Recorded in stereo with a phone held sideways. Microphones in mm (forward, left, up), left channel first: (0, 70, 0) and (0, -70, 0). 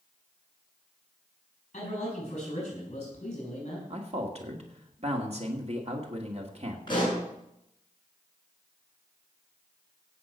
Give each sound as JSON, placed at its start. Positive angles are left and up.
{"t": 1.7, "sound": "a man speaking", "side_deg": 50, "distance_m": 8.0}
{"t": 3.9, "sound": "a man speaking", "side_deg": -50, "distance_m": 1.9}
{"t": 6.9, "sound": "a pop", "side_deg": 35, "distance_m": 7.0}